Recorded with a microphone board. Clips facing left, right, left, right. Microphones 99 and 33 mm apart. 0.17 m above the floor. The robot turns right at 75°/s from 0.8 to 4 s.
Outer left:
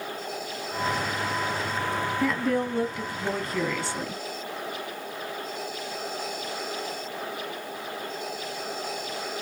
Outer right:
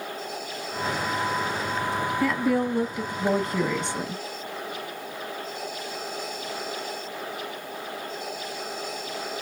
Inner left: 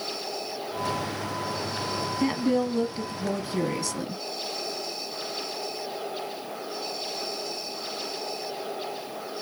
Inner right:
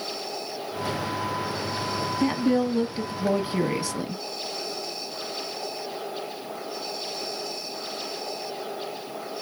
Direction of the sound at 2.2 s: Centre (ahead or behind).